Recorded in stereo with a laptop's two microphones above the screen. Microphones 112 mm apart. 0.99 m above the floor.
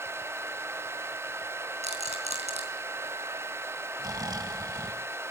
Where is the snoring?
35° right (ahead or behind), 1.5 m.